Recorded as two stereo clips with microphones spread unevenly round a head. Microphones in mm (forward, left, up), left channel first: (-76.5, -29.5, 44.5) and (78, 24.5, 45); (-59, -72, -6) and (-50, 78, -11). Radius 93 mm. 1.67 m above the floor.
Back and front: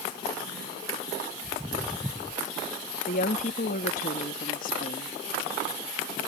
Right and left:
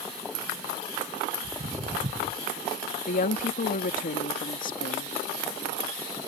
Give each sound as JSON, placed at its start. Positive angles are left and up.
{"t": 1.4, "sound": "footsteps", "azimuth_deg": 110}
{"t": 3.1, "sound": "a woman speaking", "azimuth_deg": -120}